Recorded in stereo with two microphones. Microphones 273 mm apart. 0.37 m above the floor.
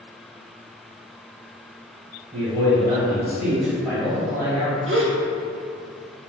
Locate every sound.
2.3 s a man speaking: 25° right (ahead or behind), 1.6 m; by 4.8 s 15° left (ahead or behind), 2 m
4.9 s a gasp: 50° right (ahead or behind), 0.6 m